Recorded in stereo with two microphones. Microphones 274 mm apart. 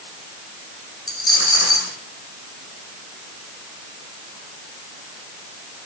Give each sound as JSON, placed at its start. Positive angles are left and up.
{"t": 1.1, "sound": "a dropped coin", "side_deg": 50, "distance_m": 3.5}